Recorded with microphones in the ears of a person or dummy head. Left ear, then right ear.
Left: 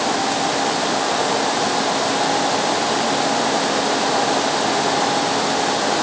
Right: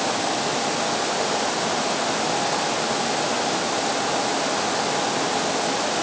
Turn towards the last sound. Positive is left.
No sound to turn to.